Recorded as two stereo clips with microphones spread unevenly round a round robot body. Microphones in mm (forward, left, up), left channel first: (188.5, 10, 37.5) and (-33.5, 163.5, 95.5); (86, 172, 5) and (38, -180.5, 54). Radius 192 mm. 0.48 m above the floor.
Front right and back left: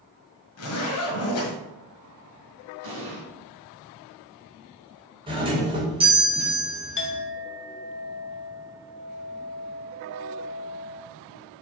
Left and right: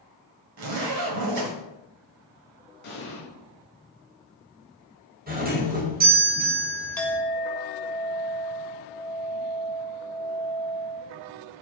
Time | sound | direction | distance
0.6 | a zipper | 70° right | 1.6 m
2.8 | an explosion | 145° left | 2 m
5.3 | a doorbell | 140° right | 1.7 m
7.0 | a clink | straight ahead | 1.5 m